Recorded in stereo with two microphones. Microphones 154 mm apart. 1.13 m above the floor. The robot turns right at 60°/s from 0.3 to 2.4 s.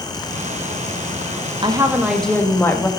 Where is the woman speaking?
35° right, 1.4 m; by 2.9 s 15° left, 1.4 m.